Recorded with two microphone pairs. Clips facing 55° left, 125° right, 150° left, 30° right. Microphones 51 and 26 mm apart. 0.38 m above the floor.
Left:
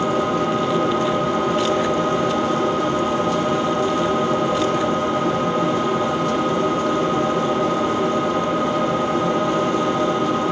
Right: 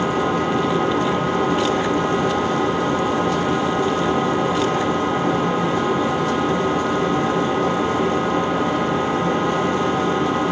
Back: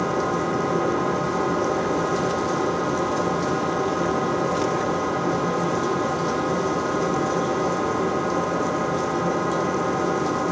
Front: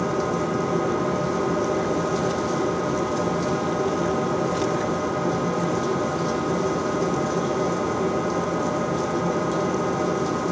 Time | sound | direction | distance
0.0 | an engine running | 145° right | 0.9 m